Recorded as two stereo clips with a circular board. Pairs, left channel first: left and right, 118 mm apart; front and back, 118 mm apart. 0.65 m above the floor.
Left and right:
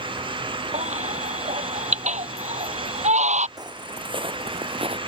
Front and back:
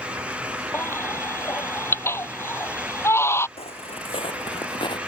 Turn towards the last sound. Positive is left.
turn(degrees=-50)